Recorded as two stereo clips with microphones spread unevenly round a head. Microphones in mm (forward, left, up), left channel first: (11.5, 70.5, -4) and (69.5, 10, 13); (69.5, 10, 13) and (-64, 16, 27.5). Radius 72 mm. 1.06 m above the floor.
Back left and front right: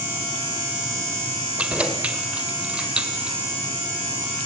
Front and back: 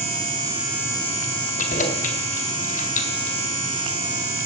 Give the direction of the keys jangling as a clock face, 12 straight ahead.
11 o'clock.